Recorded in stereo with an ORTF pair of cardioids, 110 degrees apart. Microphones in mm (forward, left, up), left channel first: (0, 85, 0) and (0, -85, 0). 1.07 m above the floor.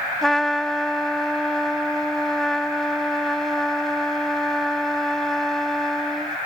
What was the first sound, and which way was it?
A trumpet, 5° left.